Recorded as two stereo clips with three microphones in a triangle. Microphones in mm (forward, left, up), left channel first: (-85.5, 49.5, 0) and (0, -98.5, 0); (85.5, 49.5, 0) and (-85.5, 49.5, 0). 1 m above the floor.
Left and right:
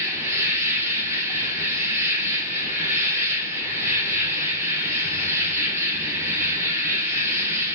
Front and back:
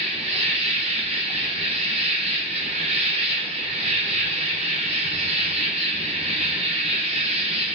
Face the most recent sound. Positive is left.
turn(degrees=-135)